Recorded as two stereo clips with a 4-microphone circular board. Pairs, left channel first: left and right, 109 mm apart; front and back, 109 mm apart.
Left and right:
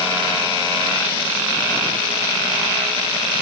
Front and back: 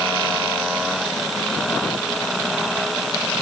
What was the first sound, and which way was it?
Only background noise.